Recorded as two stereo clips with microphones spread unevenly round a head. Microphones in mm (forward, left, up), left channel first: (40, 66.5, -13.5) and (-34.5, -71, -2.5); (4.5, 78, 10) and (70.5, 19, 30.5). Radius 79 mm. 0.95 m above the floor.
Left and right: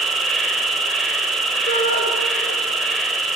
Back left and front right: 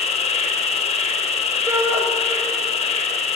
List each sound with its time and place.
0.0 s an insect: 150° left, 3 m
1.7 s a shout: 15° left, 6 m